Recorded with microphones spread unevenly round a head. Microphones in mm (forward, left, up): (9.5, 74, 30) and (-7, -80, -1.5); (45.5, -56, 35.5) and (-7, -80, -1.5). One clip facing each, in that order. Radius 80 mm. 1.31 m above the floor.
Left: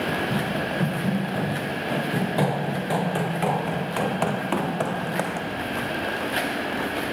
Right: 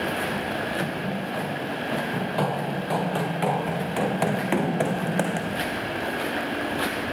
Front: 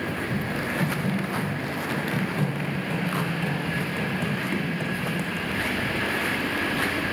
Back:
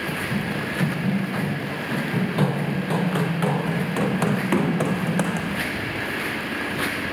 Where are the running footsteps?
145° left; by 5.6 s 160° right.